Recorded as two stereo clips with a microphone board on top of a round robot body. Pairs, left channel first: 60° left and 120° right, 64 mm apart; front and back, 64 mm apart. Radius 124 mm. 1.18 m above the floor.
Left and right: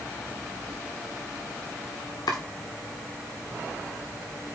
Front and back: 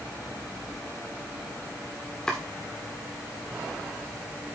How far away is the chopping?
About 1.3 m.